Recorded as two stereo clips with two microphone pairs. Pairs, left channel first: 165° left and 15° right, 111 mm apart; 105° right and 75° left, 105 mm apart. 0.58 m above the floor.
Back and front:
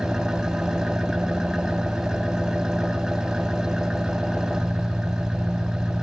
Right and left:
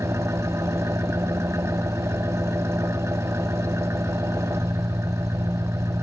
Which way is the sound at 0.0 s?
70° left.